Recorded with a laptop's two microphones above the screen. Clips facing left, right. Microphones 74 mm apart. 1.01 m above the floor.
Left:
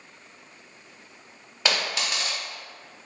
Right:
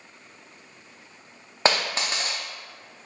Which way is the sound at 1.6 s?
35° right (ahead or behind).